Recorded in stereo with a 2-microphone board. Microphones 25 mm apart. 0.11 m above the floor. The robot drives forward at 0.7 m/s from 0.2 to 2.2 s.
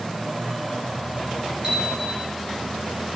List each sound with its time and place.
1.6 s a bicycle bell: 25° right (ahead or behind), 8.5 m